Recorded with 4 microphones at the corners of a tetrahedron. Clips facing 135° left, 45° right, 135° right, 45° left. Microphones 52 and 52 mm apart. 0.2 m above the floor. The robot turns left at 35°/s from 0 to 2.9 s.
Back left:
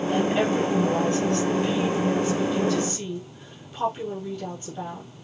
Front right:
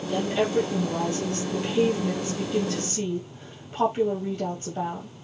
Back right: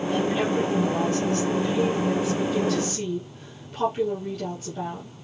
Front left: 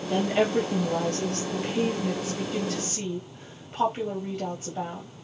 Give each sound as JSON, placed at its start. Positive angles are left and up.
{"t": 0.1, "sound": "a woman speaking", "azimuth_deg": 75, "distance_m": 4.0}